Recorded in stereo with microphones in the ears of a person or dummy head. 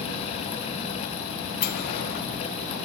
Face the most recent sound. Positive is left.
turn(degrees=55)  # may be behind; listen again after turning